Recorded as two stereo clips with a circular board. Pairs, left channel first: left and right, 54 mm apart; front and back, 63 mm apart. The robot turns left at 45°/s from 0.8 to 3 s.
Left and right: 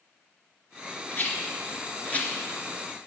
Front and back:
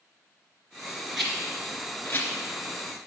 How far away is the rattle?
About 1.9 m.